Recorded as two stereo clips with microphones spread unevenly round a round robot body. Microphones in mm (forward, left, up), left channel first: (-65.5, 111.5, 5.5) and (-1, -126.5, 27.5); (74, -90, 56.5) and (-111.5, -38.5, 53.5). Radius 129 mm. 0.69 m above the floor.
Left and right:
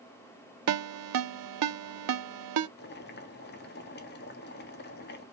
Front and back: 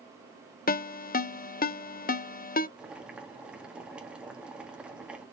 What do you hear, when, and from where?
0.7 s a ringtone: 60° right, 0.6 m
2.8 s boiling: 80° left, 1.4 m